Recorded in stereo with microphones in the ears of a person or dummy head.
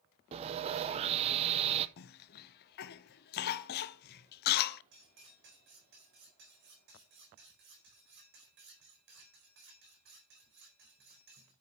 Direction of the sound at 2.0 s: 50° left (ahead or behind).